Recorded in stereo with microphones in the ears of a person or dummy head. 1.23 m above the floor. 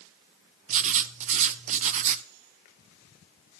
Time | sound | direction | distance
0.7 | writing | 40° right (ahead or behind) | 0.5 m